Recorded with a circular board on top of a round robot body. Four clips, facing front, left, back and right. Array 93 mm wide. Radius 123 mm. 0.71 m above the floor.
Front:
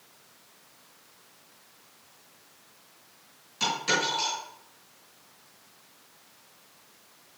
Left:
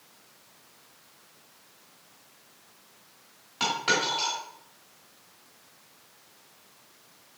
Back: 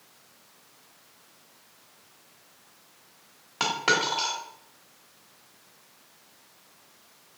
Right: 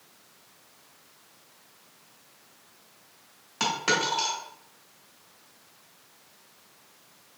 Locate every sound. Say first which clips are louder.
3.6 s a dropped coin: even, back 3 dB; 170° right, 1.6 m